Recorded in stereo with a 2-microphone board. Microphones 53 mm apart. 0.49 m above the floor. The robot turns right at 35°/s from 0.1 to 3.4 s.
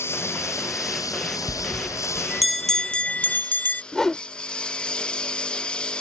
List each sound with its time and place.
0.0 s a lawn mower: 50° left; by 6.0 s 165° left
1.5 s a bell: 30° right; by 3.8 s 35° left
3.9 s a whoosh: 10° left (ahead or behind)